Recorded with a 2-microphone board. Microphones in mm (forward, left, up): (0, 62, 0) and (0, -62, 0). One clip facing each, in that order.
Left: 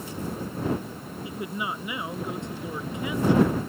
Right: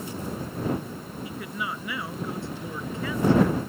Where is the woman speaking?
20° left (ahead or behind); by 3.6 s 15° left (ahead or behind).